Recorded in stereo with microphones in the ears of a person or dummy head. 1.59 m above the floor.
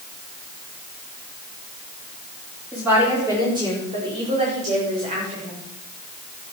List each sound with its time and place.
2.7 s a woman speaking: 10° right (ahead or behind), 4.5 m; by 5.6 s 45° right (ahead or behind), 7 m